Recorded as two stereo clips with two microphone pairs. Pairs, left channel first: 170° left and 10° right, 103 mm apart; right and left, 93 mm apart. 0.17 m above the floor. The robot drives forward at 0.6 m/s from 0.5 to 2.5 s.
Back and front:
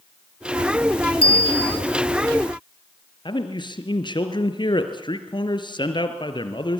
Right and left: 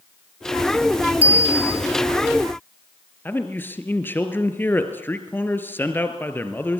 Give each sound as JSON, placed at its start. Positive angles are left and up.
{"t": 1.2, "sound": "a bicycle bell", "azimuth_deg": 160, "distance_m": 2.5}
{"t": 3.2, "sound": "a man speaking", "azimuth_deg": -155, "distance_m": 3.0}